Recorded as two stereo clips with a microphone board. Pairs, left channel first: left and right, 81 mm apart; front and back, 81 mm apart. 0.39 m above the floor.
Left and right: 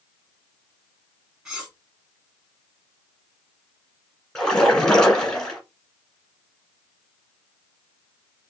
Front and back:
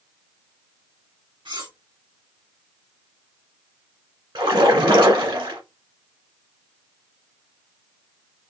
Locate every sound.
1.4 s cutlery clinking: 170° right, 1.8 m
4.3 s a splash: 170° left, 1.4 m